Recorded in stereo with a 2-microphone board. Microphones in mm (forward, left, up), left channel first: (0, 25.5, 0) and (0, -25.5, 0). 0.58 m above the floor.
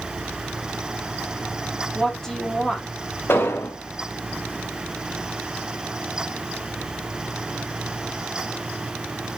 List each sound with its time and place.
1.9 s a woman speaking: 5° left (ahead or behind), 0.8 m
3.3 s an explosion: 50° left (ahead or behind), 0.7 m